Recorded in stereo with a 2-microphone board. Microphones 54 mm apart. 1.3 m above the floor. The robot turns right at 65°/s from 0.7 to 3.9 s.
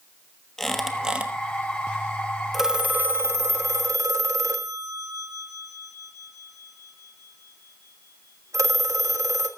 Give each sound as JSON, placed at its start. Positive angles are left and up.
{"t": 0.6, "sound": "a squeak", "azimuth_deg": 170, "distance_m": 1.2}
{"t": 2.5, "sound": "a phone ringing", "side_deg": -5, "distance_m": 1.4}